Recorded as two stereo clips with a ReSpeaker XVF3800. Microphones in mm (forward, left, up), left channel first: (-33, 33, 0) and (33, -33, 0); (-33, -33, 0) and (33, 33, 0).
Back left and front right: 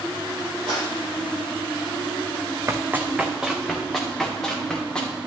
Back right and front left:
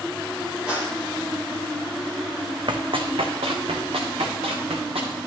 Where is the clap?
35° right, 5.5 m.